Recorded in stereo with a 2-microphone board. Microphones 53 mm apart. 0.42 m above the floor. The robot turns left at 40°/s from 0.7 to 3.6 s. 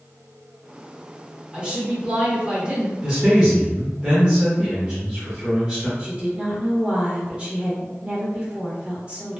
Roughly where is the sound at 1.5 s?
Centre.